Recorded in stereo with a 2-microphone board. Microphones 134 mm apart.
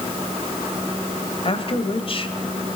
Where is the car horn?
No car horn in this recording.